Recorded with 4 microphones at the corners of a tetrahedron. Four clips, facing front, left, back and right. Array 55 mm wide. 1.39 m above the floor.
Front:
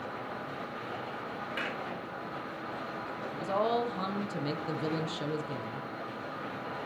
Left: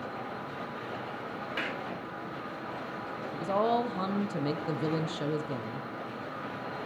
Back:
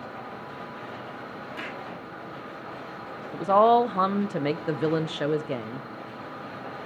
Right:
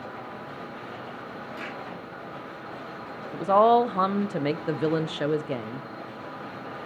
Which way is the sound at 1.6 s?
65° left.